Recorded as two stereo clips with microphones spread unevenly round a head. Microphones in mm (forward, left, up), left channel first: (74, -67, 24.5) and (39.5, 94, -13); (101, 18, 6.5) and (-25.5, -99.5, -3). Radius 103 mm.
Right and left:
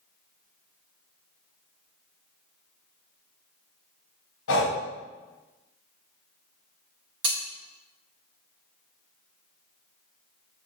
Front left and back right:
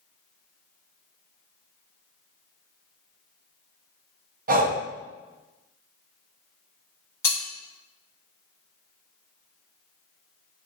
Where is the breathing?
95° right, 0.5 m.